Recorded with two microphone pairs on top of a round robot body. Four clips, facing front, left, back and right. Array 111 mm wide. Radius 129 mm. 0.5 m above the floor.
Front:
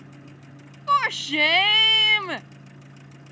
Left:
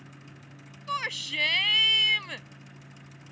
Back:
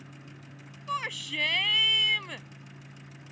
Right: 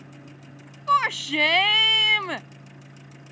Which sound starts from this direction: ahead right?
A shout, at 0.9 s.